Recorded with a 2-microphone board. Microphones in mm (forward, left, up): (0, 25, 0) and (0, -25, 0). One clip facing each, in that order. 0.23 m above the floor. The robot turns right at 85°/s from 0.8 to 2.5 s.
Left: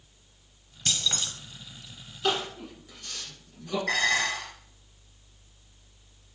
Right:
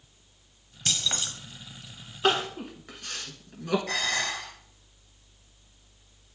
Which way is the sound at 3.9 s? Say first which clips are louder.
Left 4 dB; 65° left (ahead or behind).